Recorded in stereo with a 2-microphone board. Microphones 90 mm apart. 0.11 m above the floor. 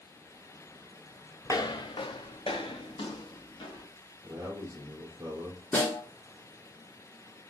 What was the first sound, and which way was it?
Footsteps, 35° left (ahead or behind).